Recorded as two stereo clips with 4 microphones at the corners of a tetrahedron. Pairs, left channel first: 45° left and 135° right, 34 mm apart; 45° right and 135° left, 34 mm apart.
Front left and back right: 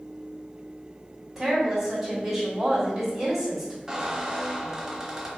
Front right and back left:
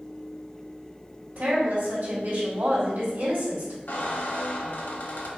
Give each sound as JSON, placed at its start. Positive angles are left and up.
{"t": 1.4, "sound": "a woman speaking", "azimuth_deg": 145, "distance_m": 2.0}
{"t": 3.9, "sound": "a squeak", "azimuth_deg": -60, "distance_m": 0.8}